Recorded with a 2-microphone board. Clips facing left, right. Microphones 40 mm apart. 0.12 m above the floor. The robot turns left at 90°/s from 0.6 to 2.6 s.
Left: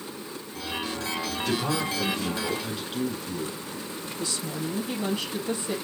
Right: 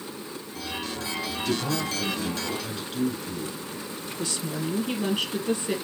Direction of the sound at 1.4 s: 25° left (ahead or behind).